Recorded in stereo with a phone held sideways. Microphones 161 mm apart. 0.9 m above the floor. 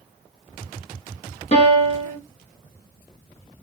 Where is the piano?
45° left (ahead or behind), 1.1 m.